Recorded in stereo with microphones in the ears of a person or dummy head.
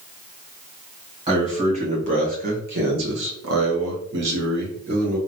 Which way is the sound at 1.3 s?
30° right (ahead or behind).